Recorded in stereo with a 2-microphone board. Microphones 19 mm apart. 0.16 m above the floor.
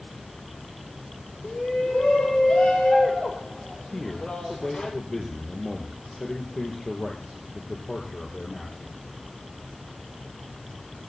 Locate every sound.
1.4 s a shout: 60° left (ahead or behind), 6.5 m
3.9 s a man speaking: 30° left (ahead or behind), 4.5 m